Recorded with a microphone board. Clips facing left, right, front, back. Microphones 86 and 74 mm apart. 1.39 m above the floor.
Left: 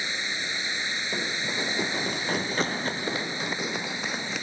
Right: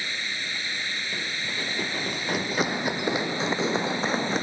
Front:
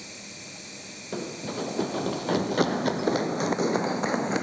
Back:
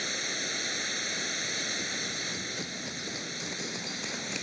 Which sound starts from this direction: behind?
Running water, at 0.0 s.